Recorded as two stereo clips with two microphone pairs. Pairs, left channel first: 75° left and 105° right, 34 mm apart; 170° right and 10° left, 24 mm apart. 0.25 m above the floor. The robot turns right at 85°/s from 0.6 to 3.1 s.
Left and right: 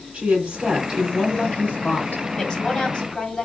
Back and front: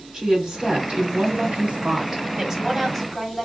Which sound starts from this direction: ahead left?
A woman speaking, at 2.4 s.